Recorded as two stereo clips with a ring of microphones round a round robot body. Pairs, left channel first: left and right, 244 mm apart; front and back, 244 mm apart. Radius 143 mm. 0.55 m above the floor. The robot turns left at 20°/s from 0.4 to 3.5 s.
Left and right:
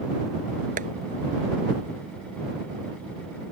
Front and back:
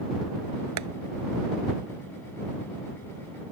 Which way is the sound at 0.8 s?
150° right.